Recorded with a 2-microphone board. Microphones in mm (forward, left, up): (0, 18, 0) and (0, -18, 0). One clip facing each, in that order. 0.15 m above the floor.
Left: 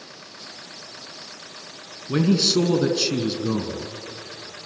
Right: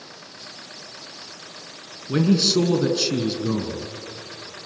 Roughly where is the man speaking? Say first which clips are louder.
Right 1 dB; centre.